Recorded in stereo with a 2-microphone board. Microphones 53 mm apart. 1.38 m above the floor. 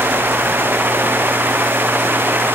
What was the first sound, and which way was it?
Only background noise.